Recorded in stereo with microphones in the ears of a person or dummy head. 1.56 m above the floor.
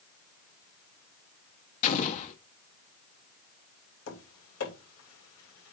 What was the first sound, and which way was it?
An explosion, 45° left (ahead or behind).